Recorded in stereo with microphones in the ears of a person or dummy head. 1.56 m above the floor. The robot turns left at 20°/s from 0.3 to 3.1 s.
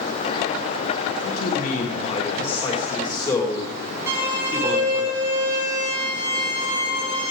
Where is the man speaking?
55° left, 2 m; by 5.1 s 20° left, 2 m.